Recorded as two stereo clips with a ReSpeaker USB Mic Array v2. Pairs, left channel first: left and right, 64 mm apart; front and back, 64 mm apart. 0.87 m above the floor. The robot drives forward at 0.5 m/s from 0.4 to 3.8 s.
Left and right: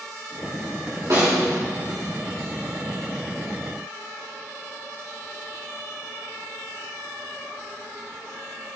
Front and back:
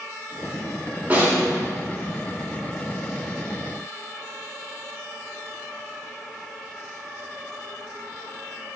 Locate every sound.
1.1 s a snare drum: 120° right, 3 m